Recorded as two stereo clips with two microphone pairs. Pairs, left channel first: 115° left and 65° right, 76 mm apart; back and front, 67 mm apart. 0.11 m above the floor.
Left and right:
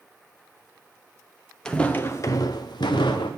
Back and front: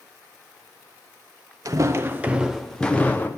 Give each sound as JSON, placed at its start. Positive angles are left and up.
{"t": 1.6, "sound": "footsteps", "azimuth_deg": 35, "distance_m": 1.1}